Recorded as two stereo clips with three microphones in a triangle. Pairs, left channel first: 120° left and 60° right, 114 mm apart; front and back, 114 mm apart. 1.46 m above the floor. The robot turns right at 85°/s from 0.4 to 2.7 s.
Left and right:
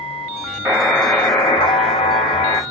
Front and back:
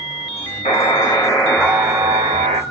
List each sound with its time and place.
0.7 s a buzzer: 5° left, 0.9 m; by 2.6 s 175° left, 0.9 m